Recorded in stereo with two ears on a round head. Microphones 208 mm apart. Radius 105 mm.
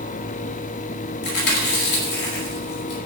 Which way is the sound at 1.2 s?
45° left (ahead or behind).